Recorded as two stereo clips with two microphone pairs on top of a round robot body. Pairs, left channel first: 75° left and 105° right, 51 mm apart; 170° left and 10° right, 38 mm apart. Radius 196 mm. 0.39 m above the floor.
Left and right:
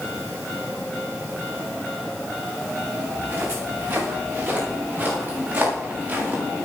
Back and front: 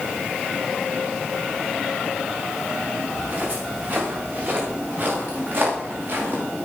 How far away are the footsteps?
About 9 m.